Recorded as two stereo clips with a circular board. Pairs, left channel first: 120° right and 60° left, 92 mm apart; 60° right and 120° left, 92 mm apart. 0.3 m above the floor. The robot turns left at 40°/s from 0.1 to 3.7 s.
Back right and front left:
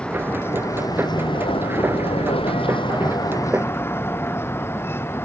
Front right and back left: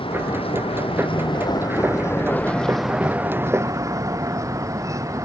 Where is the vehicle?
40° right; by 5.3 s 175° left.